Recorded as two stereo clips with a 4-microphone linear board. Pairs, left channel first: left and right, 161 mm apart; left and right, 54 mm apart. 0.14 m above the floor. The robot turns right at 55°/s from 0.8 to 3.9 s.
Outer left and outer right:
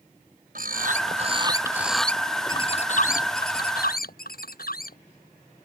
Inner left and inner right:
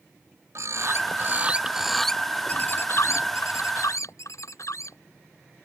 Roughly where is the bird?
Ahead right.